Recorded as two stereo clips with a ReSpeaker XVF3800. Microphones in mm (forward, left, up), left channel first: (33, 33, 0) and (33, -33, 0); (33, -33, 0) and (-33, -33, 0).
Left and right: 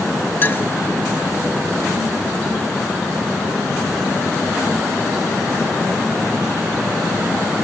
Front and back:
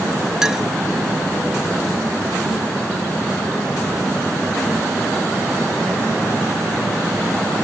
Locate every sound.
0.4 s a clink: 105° left, 0.7 m